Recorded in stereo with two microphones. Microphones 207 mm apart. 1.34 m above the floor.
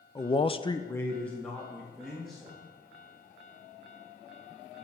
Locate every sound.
0.1 s a man speaking: 20° left (ahead or behind), 0.8 m; by 2.5 s centre (ahead or behind), 3 m